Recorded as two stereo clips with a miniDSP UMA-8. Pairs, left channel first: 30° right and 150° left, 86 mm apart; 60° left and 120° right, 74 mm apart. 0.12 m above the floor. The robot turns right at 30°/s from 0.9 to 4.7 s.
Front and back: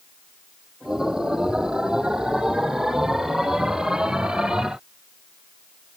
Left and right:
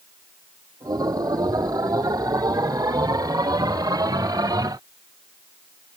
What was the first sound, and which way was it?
Only background noise.